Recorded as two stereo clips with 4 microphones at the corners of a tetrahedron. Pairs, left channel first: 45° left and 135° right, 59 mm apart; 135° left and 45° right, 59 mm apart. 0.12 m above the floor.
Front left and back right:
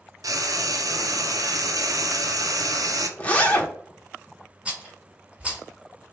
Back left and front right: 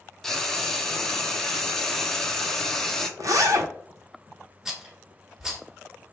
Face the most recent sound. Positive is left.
turn(degrees=-110)